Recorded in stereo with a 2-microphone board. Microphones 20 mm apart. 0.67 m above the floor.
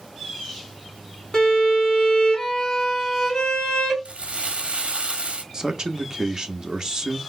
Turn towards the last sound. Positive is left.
turn(degrees=-30)  # may be behind; listen again after turning